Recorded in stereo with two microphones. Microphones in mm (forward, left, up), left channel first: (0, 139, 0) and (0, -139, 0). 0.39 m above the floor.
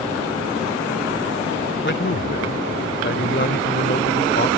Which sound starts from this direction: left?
A man speaking, at 1.8 s.